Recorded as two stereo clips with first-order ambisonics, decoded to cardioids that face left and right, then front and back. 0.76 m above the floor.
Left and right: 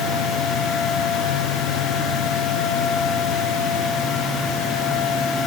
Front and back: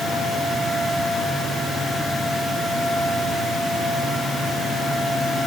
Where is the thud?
I don't hear a thud.